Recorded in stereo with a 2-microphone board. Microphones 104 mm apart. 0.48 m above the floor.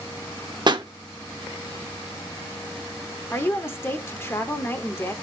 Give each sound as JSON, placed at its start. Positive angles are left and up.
{"t": 0.7, "sound": "a pop", "side_deg": -45, "distance_m": 0.7}
{"t": 3.3, "sound": "a woman speaking", "side_deg": 25, "distance_m": 1.1}